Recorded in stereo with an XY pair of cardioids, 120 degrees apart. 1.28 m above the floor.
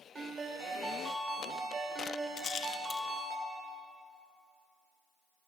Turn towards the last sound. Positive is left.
turn(degrees=50)